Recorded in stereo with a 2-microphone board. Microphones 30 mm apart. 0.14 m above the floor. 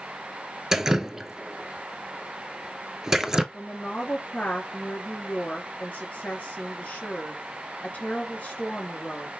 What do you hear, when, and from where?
0.7 s dripping: 15° right (ahead or behind), 0.7 m
3.5 s a woman speaking: 50° left (ahead or behind), 2.5 m